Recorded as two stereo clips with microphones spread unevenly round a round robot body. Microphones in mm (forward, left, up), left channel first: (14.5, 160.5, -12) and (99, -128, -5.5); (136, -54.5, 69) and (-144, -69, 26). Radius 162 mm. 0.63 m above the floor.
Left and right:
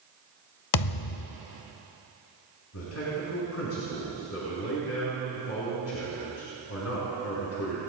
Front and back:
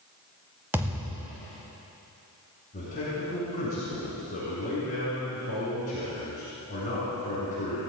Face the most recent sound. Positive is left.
turn(degrees=70)